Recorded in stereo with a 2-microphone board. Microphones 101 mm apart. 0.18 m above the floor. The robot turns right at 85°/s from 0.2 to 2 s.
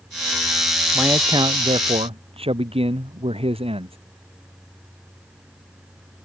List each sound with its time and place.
0.9 s a man speaking: 170° right; by 4.0 s 80° right